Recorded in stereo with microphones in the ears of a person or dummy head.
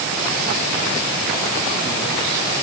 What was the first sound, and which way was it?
Only background noise.